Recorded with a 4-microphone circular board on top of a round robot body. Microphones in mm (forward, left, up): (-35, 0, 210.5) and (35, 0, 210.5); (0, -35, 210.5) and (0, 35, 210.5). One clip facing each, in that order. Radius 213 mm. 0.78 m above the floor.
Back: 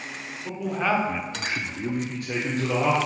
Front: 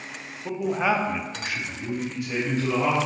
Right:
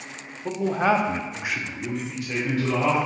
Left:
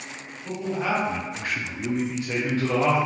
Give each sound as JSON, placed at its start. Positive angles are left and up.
{"t": 0.5, "sound": "a man speaking", "azimuth_deg": -65, "distance_m": 0.7}